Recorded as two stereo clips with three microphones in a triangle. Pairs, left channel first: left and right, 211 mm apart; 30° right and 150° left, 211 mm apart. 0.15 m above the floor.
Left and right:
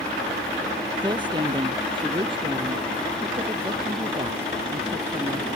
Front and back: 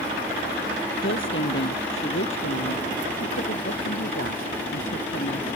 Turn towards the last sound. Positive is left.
turn(degrees=-30)